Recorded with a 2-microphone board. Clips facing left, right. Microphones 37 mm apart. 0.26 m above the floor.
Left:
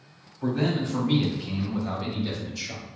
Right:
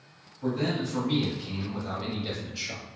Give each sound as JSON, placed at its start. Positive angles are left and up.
{"t": 0.4, "sound": "a man speaking", "side_deg": 40, "distance_m": 1.6}